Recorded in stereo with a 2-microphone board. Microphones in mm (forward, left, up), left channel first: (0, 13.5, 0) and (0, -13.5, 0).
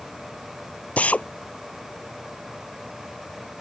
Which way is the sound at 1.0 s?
50° left (ahead or behind).